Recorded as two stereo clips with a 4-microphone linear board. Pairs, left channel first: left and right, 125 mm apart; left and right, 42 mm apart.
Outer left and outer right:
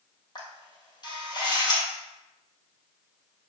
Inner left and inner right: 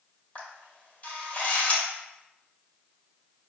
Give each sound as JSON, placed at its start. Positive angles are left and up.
{"t": 0.3, "sound": "a camera shutter", "side_deg": 35, "distance_m": 1.6}